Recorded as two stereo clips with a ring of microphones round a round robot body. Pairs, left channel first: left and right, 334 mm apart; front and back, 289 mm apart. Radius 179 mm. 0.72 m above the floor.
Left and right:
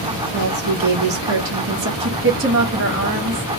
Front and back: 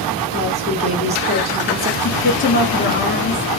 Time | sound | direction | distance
0.3 | a woman speaking | 120° right | 1.1 m
2.0 | a woman speaking | 50° right | 1.2 m